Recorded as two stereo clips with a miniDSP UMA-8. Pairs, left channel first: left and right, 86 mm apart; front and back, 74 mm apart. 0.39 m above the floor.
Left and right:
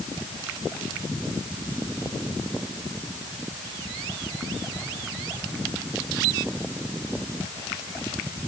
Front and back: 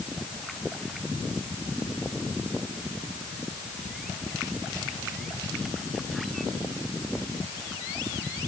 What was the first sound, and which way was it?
Only background noise.